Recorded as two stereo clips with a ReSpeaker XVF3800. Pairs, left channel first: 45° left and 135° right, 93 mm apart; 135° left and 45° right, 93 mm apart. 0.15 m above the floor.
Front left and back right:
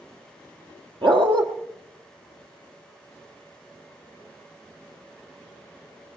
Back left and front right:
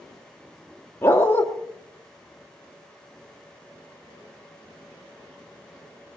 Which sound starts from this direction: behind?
A dog barking, at 1.0 s.